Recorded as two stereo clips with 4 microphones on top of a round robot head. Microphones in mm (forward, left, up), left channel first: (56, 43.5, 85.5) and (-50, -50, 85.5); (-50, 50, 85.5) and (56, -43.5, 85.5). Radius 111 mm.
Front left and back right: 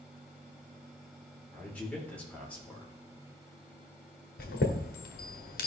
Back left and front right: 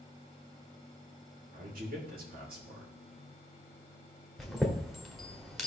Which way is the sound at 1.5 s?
40° right.